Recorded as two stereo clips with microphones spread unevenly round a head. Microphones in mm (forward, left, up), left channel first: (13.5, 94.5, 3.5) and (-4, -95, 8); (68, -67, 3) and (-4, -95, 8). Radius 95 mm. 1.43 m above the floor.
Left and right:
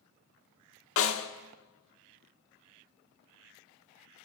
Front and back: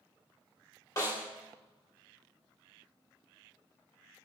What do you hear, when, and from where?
1.0 s a snare drum: 90° left, 1.6 m